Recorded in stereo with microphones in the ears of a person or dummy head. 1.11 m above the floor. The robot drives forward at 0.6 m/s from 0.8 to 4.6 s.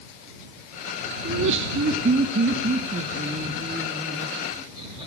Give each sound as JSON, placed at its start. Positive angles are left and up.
{"t": 1.2, "sound": "laughter", "side_deg": -60, "distance_m": 0.9}